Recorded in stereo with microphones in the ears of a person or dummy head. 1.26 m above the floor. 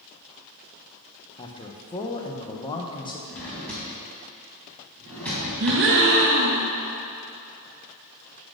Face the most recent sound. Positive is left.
turn(degrees=-70)  # may be behind; listen again after turning